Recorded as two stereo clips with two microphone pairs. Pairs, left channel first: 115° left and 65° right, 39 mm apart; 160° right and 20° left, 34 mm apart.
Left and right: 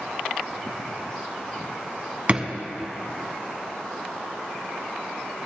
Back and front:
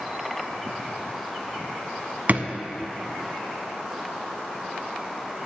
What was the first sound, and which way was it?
A drawer, 10° right.